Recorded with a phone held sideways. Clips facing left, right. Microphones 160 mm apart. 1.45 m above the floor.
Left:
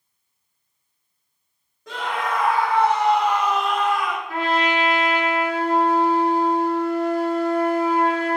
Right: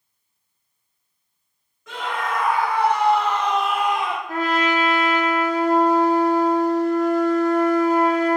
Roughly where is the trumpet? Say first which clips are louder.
Right 1 dB; right.